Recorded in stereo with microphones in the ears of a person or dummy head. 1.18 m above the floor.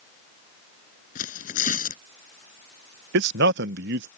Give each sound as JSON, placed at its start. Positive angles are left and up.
{"t": 1.1, "sound": "tearing paper", "side_deg": 40}
{"t": 3.1, "sound": "a man speaking", "side_deg": -55}